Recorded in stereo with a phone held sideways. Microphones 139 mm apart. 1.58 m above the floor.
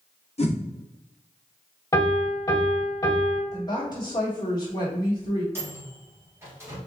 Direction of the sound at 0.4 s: 45° left (ahead or behind).